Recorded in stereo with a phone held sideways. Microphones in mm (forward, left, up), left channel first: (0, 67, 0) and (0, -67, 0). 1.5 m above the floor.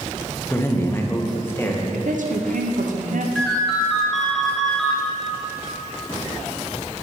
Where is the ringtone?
Centre (ahead or behind), 1.0 m.